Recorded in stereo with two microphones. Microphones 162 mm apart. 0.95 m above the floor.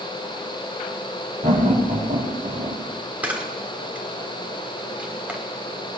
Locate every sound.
1.4 s laughter: 55° right (ahead or behind), 3.5 m
3.2 s a camera shutter: 10° right (ahead or behind), 1.5 m